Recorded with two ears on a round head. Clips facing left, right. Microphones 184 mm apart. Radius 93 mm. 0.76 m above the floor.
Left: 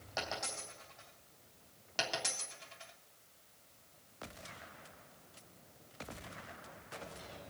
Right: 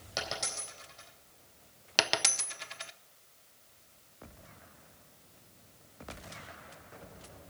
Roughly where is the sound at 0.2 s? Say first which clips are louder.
Right 2 dB; right.